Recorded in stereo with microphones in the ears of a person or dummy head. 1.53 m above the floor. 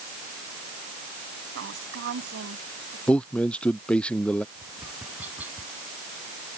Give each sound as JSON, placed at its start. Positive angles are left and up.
{"t": 1.6, "sound": "a woman speaking", "side_deg": -65}
{"t": 3.1, "sound": "a man speaking", "side_deg": 5}
{"t": 4.5, "sound": "tapping", "side_deg": -5}